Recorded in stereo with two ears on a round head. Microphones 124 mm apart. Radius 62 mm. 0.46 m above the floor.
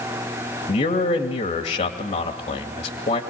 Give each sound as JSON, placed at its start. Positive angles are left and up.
{"t": 0.7, "sound": "a man speaking", "side_deg": 50, "distance_m": 2.5}